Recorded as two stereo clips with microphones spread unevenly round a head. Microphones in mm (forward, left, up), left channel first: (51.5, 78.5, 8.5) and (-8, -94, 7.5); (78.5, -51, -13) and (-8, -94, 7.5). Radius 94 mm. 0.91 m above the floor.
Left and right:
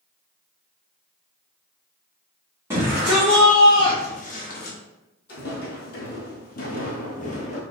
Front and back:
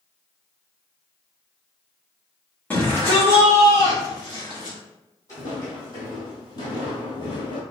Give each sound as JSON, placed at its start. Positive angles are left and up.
{"t": 2.7, "sound": "a shout", "azimuth_deg": -35, "distance_m": 1.2}
{"t": 5.3, "sound": "footsteps", "azimuth_deg": 100, "distance_m": 1.7}